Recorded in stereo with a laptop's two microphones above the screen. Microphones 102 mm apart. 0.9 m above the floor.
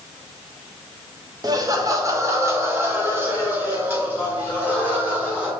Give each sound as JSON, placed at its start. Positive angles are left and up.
{"t": 1.4, "sound": "laughter", "side_deg": -35, "distance_m": 0.8}